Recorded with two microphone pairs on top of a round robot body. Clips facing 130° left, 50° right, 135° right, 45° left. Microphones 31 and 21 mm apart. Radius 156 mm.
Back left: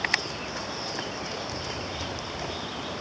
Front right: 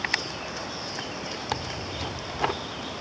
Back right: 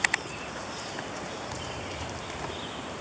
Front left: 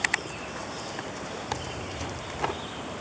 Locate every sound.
1.5 s tearing paper: 15° right